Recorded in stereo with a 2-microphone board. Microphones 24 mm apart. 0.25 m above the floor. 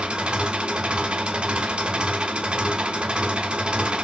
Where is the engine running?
40° right (ahead or behind), 0.9 m.